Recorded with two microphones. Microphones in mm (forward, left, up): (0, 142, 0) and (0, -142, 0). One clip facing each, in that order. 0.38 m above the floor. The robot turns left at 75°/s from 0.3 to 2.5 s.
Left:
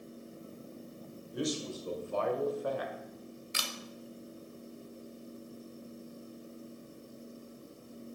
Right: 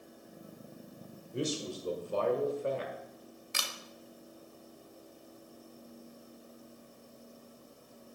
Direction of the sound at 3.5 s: 55° right (ahead or behind).